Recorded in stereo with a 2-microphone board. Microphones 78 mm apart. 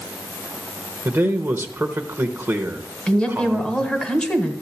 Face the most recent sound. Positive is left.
turn(degrees=10)  # may be behind; listen again after turning